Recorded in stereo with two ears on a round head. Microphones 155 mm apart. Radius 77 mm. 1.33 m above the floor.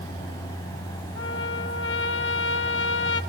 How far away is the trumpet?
About 1.2 m.